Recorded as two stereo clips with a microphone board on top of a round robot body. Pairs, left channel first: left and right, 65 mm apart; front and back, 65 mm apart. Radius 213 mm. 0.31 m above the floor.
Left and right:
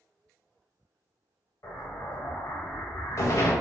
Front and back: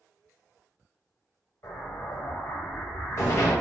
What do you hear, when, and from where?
1.6 s an explosion: 45° left, 0.7 m